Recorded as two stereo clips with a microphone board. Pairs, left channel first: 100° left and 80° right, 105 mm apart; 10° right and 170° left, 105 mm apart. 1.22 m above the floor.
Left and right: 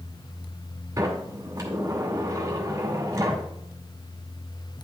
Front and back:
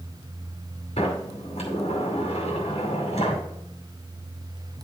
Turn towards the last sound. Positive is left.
turn(degrees=-20)